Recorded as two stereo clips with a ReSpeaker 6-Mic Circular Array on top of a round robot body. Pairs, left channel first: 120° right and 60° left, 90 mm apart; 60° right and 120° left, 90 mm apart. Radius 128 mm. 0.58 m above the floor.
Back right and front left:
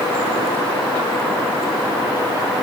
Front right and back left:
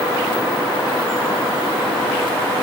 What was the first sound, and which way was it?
Only background noise.